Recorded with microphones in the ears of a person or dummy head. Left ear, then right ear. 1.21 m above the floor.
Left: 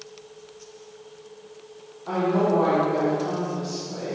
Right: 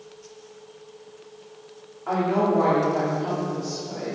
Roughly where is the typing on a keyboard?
No typing on a keyboard in this recording.